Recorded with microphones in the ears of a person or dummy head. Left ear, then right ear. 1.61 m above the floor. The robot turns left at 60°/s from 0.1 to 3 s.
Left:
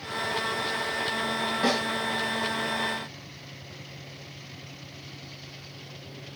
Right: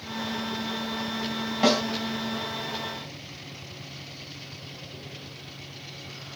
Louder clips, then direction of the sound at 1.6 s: Right 5 dB; 15° right (ahead or behind).